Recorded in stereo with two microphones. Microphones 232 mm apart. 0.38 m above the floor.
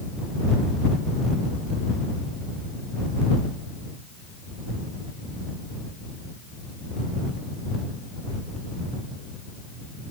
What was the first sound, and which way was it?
Only background noise.